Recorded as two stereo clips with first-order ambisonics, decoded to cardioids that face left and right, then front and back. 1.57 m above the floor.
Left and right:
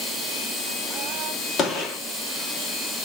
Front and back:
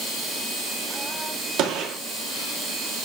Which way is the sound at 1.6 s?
145° left.